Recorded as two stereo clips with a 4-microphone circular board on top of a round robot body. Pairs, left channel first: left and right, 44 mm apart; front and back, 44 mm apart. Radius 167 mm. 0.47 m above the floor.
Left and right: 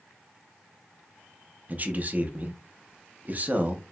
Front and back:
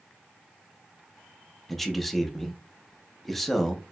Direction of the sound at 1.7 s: 85° right.